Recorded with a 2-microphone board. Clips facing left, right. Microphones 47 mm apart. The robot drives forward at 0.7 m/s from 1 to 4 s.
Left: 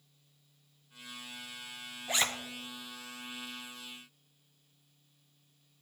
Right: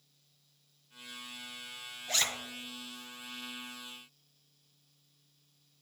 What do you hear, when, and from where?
2.1 s a zipper: 15° left (ahead or behind), 0.6 m